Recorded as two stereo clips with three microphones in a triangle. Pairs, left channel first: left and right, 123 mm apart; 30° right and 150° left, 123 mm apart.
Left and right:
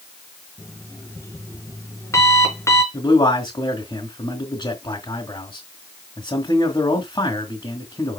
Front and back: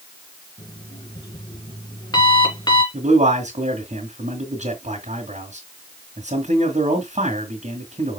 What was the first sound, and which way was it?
An alarm clock, 25° left.